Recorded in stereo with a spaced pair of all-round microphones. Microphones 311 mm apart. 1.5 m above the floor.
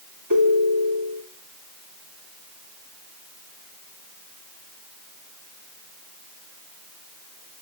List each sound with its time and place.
0.3 s a ringtone: 85° right, 3.5 m